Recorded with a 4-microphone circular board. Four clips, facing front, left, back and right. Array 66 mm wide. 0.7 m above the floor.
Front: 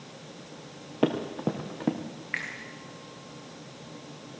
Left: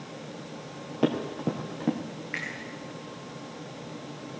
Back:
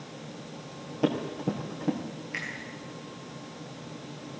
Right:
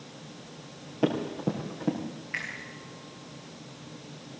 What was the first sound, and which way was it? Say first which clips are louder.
Running footsteps: left 1 dB, front 1 dB; 15° left.